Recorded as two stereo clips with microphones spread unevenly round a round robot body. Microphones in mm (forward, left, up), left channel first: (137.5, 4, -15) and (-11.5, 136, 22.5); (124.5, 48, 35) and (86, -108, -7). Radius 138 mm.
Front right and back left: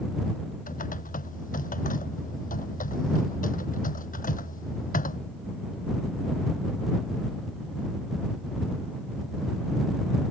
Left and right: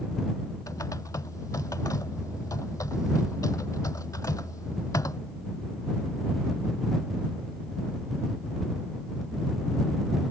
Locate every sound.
0.7 s typing on a keyboard: 5° left